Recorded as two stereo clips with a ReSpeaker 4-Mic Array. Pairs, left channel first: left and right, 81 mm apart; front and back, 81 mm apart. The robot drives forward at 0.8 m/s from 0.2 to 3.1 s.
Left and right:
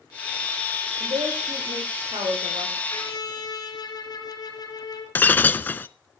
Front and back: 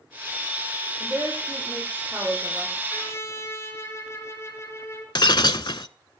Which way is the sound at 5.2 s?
25° left.